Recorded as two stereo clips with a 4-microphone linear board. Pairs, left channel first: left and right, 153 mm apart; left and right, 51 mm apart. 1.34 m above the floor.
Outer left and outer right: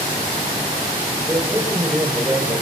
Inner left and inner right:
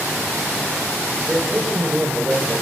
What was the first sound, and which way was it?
A man speaking, 15° right (ahead or behind).